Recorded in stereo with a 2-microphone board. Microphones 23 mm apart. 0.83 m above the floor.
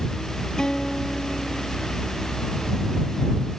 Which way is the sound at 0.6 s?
35° left (ahead or behind).